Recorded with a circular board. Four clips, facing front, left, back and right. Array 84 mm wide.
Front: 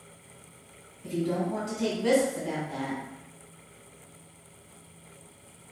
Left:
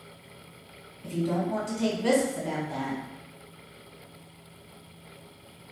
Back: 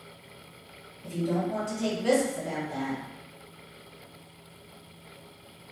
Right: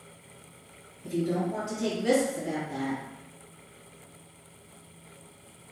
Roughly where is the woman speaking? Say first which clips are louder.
Even, even; left.